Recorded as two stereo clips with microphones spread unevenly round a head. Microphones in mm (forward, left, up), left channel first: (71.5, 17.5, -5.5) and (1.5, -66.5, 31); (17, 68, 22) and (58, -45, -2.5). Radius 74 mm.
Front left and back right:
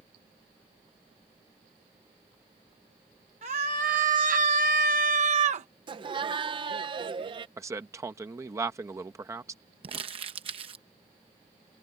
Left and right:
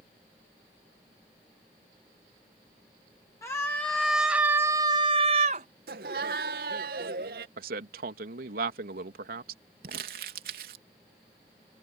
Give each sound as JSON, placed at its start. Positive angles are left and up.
{"t": 3.4, "sound": "a scream", "azimuth_deg": -175}
{"t": 5.9, "sound": "laughter", "azimuth_deg": -90}
{"t": 7.6, "sound": "a man speaking", "azimuth_deg": -75}
{"t": 9.8, "sound": "crumpling", "azimuth_deg": -100}